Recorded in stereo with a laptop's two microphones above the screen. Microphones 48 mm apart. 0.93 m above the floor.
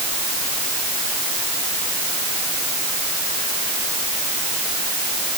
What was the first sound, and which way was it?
Only background noise.